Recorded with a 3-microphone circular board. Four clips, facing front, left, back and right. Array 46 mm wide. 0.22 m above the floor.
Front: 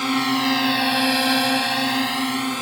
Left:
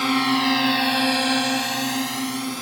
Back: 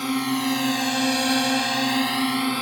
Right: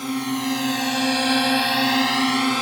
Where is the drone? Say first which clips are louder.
Left 5 dB, front 3 dB; 60° left; by 2.6 s 90° right.